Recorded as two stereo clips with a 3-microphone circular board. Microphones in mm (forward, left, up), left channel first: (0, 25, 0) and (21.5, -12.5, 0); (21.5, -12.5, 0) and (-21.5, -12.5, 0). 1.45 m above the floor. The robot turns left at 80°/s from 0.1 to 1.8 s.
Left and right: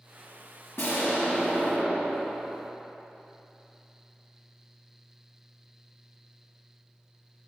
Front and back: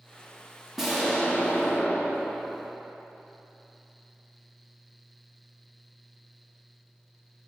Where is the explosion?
100° left, 1.5 m; by 2.7 s 20° left, 1.5 m.